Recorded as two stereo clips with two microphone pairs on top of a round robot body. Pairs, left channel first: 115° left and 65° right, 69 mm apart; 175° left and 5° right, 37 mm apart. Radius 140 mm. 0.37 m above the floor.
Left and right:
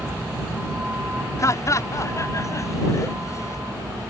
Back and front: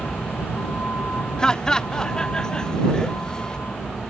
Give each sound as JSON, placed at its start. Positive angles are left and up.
{"t": 0.0, "sound": "a vehicle", "azimuth_deg": -140}
{"t": 1.4, "sound": "laughter", "azimuth_deg": 120}